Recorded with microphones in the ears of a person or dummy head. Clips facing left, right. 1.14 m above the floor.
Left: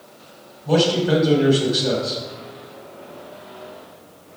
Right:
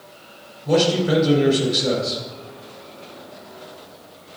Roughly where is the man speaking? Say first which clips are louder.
Even; right.